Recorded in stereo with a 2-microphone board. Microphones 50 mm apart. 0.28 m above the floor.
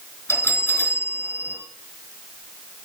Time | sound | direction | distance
0.3 | a bell | 50° left (ahead or behind) | 3.5 m